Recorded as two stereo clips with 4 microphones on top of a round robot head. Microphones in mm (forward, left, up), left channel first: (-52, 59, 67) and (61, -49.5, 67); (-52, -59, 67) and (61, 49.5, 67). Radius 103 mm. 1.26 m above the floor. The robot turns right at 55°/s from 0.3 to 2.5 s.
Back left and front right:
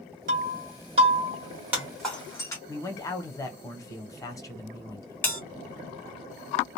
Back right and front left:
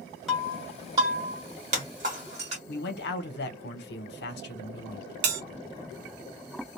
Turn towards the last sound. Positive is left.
turn(degrees=60)